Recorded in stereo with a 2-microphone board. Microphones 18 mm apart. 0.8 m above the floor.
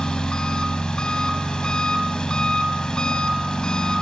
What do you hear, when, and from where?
0.0 s an engine running: 80° left, 1.8 m